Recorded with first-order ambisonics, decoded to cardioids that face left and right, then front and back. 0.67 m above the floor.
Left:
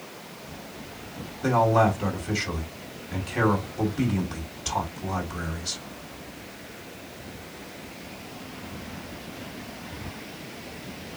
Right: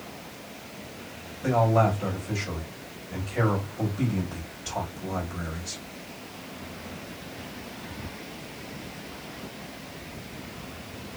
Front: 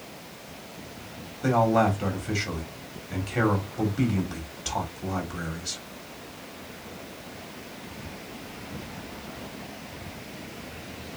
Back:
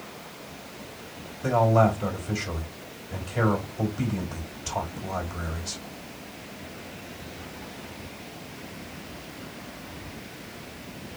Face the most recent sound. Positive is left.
turn(degrees=30)